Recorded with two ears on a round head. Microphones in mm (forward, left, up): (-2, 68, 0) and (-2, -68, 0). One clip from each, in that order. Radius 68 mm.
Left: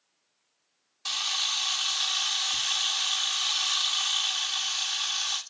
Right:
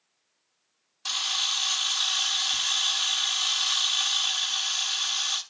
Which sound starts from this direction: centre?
A camera shutter, at 1.1 s.